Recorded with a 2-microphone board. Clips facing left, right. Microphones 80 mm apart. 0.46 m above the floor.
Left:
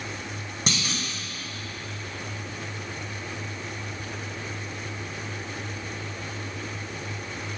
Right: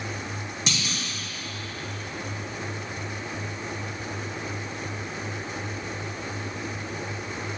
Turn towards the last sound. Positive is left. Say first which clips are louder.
# left 3 dB
turn(degrees=45)  # may be behind; listen again after turning